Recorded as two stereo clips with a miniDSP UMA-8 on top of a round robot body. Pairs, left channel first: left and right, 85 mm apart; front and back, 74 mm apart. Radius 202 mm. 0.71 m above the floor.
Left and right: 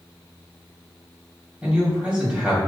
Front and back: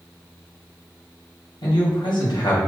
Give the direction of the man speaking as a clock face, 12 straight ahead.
12 o'clock.